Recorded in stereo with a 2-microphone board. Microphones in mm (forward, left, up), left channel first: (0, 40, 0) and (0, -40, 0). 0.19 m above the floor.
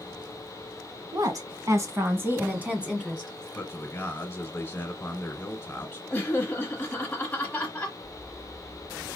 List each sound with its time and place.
1.1 s a woman speaking: 45° right (ahead or behind), 1.5 m; by 3.5 s 5° right (ahead or behind), 1.6 m
3.5 s a man speaking: 20° left (ahead or behind), 1.2 m
6.1 s laughter: 20° left (ahead or behind), 1.1 m